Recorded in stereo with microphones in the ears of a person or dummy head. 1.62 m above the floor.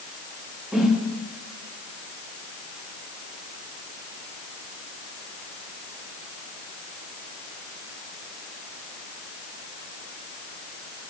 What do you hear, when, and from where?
0.7 s a whoosh: centre (ahead or behind), 0.7 m